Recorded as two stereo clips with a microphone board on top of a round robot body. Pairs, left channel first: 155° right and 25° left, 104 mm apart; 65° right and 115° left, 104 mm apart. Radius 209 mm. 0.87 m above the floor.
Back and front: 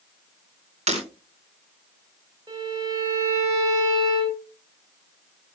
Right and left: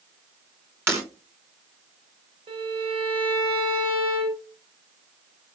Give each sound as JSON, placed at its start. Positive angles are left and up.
{"t": 0.9, "sound": "breaking glass", "azimuth_deg": 45, "distance_m": 4.0}
{"t": 2.5, "sound": "a violin", "azimuth_deg": 75, "distance_m": 5.0}